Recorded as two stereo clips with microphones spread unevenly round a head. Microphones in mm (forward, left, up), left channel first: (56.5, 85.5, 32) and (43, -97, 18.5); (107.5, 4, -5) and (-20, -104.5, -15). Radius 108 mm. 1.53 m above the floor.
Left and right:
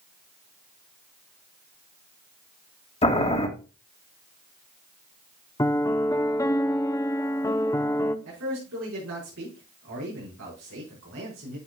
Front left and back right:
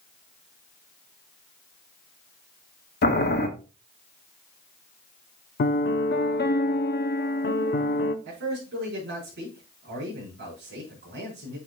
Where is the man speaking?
120° right, 5 m.